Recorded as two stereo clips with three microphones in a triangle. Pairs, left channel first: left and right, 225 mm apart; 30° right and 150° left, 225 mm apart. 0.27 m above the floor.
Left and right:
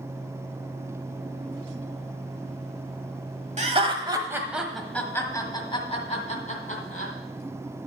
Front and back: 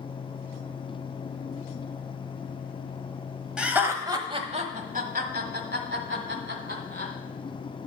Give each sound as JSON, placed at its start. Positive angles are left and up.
{"t": 3.6, "sound": "laughter", "azimuth_deg": -125, "distance_m": 1.2}